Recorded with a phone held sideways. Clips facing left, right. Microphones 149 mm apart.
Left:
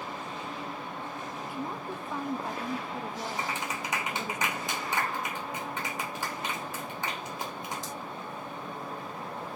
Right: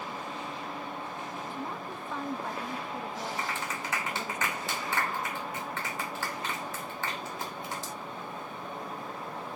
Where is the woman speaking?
10° left (ahead or behind), 1.1 m.